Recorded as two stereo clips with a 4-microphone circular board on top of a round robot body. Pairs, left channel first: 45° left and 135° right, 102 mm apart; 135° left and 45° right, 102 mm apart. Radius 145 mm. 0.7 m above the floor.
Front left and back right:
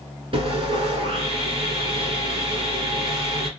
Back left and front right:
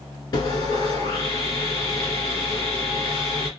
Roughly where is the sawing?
Behind.